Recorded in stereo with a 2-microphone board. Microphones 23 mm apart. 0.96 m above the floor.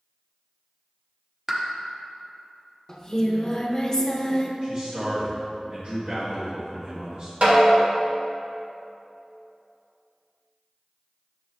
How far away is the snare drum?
About 1.7 m.